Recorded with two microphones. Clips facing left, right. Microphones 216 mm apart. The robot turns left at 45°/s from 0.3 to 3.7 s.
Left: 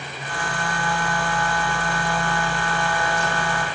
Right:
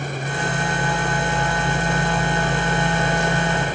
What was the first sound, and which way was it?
Only background noise.